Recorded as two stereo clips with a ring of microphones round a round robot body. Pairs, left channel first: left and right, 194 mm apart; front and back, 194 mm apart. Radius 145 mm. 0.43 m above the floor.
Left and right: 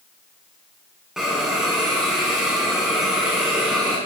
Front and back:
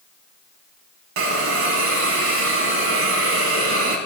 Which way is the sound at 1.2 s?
Straight behind.